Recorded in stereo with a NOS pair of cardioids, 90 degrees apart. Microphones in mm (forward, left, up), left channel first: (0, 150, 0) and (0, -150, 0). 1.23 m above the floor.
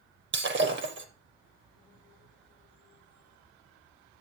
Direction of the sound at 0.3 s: 40° right.